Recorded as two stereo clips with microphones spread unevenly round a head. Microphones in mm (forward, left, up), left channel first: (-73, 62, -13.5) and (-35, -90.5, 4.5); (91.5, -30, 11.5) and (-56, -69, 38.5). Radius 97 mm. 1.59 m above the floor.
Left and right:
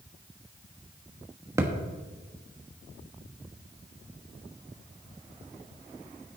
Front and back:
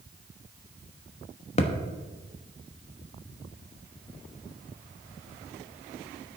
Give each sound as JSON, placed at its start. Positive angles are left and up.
{"t": 1.6, "sound": "a thud", "azimuth_deg": -20, "distance_m": 1.1}